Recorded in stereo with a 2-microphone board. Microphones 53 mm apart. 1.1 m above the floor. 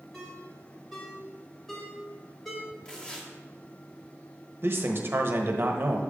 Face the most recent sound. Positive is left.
turn(degrees=-45)  # may be behind; listen again after turning